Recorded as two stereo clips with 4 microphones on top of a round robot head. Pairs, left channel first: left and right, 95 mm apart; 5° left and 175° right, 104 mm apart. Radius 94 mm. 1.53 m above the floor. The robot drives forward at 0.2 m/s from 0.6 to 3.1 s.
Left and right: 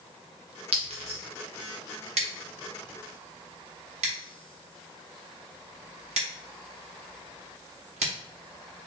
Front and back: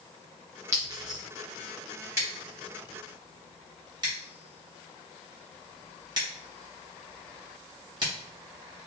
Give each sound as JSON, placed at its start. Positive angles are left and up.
{"t": 0.7, "sound": "a clink", "azimuth_deg": -105, "distance_m": 0.5}
{"t": 2.2, "sound": "scissors", "azimuth_deg": -105, "distance_m": 0.9}